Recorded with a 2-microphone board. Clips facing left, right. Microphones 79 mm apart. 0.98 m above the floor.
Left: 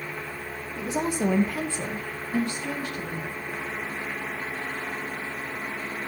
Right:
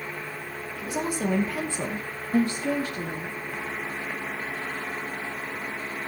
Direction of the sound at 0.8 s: 30° left (ahead or behind).